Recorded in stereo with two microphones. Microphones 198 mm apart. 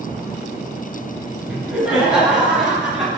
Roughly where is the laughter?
Centre.